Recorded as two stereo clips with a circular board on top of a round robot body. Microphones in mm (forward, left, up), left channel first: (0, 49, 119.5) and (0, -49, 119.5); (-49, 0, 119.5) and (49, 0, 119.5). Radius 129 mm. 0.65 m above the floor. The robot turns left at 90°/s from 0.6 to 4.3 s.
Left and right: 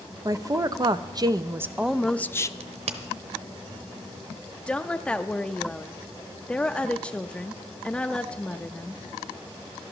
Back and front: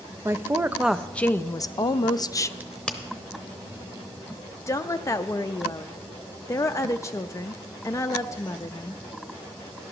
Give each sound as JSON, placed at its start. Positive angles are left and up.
{"t": 0.2, "sound": "a woman speaking", "azimuth_deg": -55, "distance_m": 0.6}
{"t": 2.6, "sound": "a crack", "azimuth_deg": -75, "distance_m": 0.7}
{"t": 4.7, "sound": "a woman speaking", "azimuth_deg": 160, "distance_m": 0.6}